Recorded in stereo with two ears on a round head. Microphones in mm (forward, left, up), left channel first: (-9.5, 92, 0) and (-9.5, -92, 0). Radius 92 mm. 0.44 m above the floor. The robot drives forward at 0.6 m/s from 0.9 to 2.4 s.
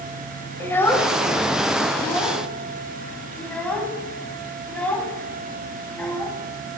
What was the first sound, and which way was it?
A child speaking, 10° left (ahead or behind).